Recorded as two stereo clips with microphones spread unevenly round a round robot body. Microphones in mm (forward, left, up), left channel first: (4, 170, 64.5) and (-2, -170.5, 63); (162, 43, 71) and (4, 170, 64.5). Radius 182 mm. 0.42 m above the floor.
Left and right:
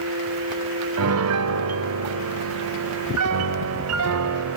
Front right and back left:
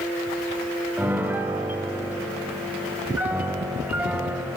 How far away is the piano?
About 1.1 m.